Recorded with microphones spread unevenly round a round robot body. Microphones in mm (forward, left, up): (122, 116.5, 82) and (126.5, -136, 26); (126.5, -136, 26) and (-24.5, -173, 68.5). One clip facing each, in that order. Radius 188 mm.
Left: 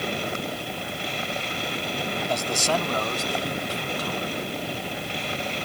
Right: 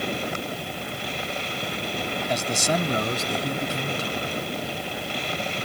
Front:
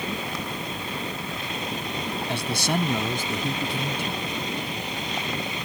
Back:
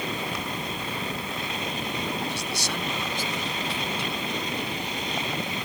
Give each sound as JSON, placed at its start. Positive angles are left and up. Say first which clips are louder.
{"t": 2.3, "sound": "a man speaking", "louder": "right 1 dB, front 5 dB", "azimuth_deg": -10}